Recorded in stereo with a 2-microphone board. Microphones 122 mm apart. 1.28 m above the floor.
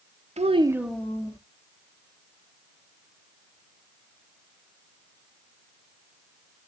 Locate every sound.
0.4 s a child speaking: 65° right (ahead or behind), 0.6 m; by 1.4 s 30° left (ahead or behind), 1.0 m